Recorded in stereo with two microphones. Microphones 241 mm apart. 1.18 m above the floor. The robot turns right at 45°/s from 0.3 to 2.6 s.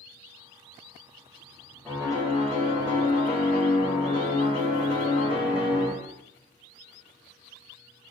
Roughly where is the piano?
Ahead.